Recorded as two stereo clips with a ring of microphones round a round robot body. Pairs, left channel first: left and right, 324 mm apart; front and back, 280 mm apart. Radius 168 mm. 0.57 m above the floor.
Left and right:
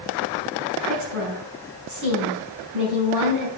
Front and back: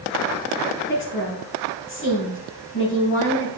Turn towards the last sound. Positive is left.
turn(degrees=-55)